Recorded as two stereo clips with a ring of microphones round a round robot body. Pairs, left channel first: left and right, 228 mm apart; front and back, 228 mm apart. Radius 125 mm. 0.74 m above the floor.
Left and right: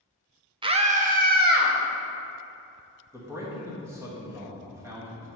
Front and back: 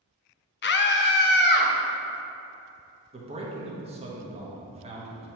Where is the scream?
25° right, 0.7 m; by 1.7 s 45° right, 1.5 m.